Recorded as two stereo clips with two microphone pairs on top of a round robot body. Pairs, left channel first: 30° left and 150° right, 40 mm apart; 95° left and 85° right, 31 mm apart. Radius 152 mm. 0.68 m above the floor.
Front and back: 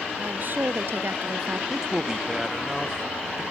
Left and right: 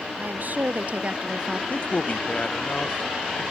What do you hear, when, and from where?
0.2 s a woman speaking: 110° right; by 1.6 s 170° right
1.7 s a man speaking: 130° left